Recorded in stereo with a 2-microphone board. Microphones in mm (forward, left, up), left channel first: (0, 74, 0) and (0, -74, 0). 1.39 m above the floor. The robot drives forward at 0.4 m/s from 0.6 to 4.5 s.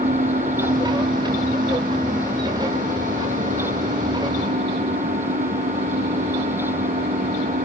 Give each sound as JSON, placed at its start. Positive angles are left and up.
{"t": 0.0, "sound": "an engine running", "side_deg": -80, "distance_m": 4.5}